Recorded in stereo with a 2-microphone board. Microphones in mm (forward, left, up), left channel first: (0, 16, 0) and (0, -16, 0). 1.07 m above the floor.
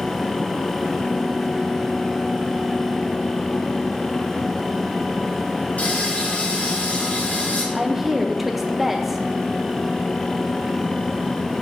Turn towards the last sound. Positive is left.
turn(degrees=-5)  # may be behind; listen again after turning